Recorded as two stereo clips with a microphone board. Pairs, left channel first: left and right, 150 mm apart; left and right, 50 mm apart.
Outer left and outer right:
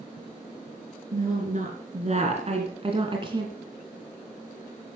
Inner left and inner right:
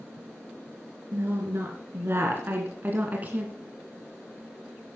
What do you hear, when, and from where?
1.1 s a woman speaking: 55° right (ahead or behind), 2.5 m; by 3.5 s 30° right (ahead or behind), 1.9 m